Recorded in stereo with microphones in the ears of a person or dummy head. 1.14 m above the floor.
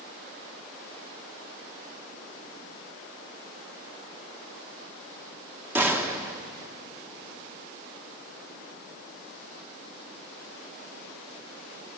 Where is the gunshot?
10° right (ahead or behind), 1.3 m.